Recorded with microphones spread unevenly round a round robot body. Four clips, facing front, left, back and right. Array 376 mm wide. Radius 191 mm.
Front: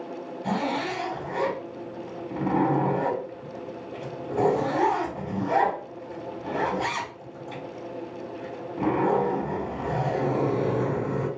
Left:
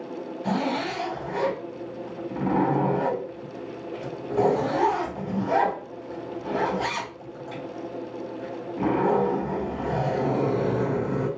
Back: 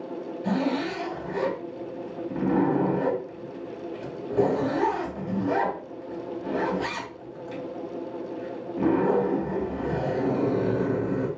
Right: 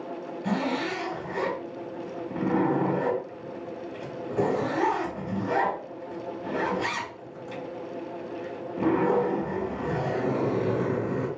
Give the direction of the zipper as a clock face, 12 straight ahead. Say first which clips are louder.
Left 2 dB, back 1 dB; 6 o'clock.